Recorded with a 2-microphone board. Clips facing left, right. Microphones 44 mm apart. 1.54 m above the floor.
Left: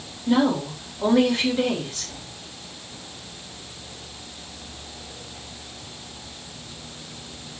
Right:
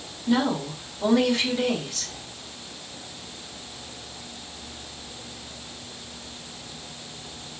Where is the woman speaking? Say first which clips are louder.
Left 3 dB; 30° left (ahead or behind), 2.5 m.